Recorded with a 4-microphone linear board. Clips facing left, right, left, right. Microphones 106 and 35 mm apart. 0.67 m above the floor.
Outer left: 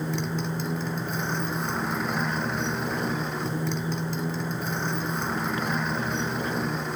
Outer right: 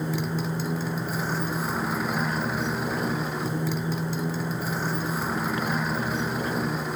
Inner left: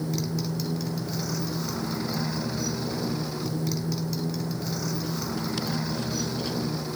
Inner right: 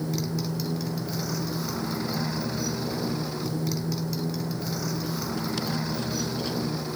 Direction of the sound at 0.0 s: 5° right (ahead or behind).